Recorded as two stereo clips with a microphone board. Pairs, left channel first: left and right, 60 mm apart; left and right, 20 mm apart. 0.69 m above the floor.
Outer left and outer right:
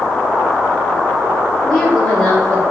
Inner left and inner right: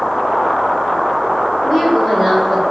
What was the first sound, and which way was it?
A woman speaking, 10° left (ahead or behind).